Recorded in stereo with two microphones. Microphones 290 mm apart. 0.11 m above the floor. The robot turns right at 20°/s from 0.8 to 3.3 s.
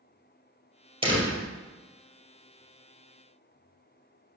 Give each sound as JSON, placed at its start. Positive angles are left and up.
{"t": 1.0, "sound": "a door slam", "side_deg": -20, "distance_m": 2.5}